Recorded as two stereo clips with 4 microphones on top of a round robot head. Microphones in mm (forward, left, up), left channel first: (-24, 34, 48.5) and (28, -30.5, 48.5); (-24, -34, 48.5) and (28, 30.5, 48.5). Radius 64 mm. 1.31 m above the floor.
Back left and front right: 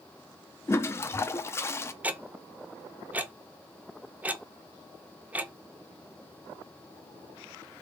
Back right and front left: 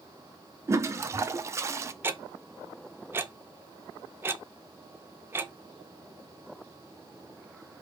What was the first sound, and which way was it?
A toilet flushing, 90° left.